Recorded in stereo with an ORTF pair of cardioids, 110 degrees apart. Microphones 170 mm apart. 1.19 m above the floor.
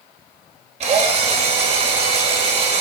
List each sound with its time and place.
0.8 s a drill: 40° right, 2 m